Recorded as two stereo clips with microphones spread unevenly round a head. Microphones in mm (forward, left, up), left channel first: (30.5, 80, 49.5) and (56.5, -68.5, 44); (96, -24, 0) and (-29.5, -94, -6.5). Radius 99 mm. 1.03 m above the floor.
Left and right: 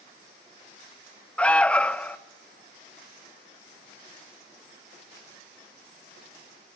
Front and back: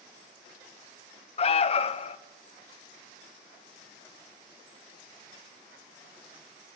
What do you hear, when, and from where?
1.4 s an alarm: 20° left, 0.5 m